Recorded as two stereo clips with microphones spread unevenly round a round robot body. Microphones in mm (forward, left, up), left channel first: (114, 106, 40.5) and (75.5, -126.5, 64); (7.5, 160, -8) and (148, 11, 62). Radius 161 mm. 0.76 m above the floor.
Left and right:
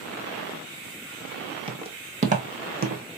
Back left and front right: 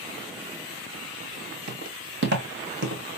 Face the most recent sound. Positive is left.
turn(degrees=-60)